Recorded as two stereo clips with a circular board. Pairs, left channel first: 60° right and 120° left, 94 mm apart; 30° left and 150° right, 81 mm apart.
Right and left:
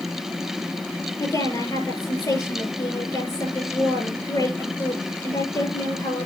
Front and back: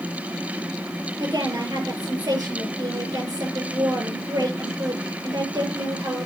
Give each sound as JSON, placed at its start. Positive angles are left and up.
{"t": 1.2, "sound": "a woman speaking", "azimuth_deg": -110, "distance_m": 5.0}